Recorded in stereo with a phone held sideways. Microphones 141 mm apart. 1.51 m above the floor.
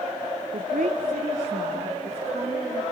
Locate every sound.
0.5 s a woman speaking: 80° right, 1.1 m; by 2.8 s 60° right (ahead or behind), 4 m